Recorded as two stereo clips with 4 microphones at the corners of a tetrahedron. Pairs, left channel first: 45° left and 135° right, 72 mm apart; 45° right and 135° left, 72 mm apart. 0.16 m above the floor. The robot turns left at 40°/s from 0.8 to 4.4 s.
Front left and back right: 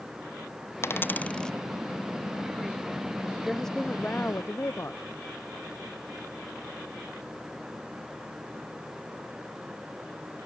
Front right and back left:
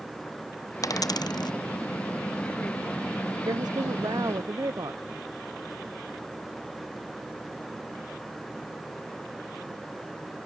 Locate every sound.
0.8 s a dropped coin: 10° right; by 1.5 s 35° right
3.5 s a woman speaking: 135° left; by 5.0 s 100° left